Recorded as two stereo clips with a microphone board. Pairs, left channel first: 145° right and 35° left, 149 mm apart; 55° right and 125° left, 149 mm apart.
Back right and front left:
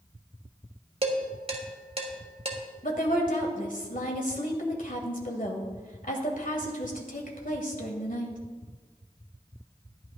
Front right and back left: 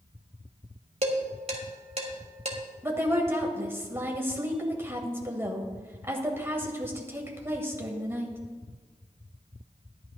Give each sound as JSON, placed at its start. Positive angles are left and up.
{"t": 1.0, "sound": "dishes clattering", "azimuth_deg": 80, "distance_m": 1.5}
{"t": 2.8, "sound": "a woman speaking", "azimuth_deg": -160, "distance_m": 1.9}